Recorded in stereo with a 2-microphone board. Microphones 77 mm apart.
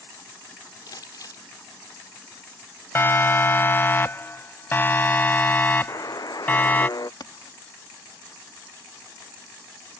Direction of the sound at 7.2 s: 60° left (ahead or behind).